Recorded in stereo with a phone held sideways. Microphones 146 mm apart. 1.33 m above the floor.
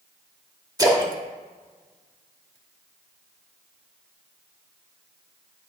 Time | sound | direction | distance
0.8 | a splash | 25° right (ahead or behind) | 1.2 m